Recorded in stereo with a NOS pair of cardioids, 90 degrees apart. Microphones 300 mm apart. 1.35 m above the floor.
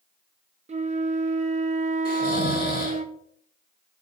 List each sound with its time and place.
0.7 s a flute: 25° right, 0.7 m
2.0 s snoring: 30° left, 2.5 m